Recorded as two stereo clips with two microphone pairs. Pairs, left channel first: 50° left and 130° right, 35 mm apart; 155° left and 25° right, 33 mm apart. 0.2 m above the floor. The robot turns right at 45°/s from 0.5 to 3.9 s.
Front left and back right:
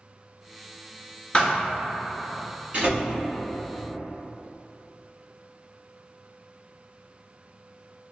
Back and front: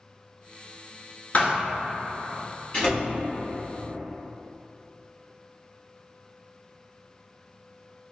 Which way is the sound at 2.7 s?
165° right.